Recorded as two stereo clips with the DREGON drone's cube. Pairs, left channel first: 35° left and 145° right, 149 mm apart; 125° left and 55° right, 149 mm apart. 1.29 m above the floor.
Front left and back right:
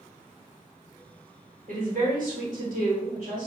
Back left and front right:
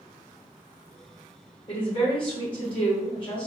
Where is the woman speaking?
Straight behind, 1.2 m.